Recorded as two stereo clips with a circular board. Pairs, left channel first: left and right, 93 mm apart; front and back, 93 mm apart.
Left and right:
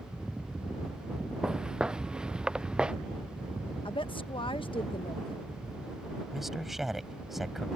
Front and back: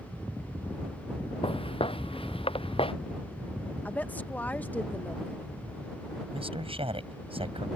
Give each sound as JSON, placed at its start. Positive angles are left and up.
{"t": 1.4, "sound": "footsteps", "azimuth_deg": -10}
{"t": 3.9, "sound": "a woman speaking", "azimuth_deg": 70}
{"t": 6.3, "sound": "a man speaking", "azimuth_deg": -175}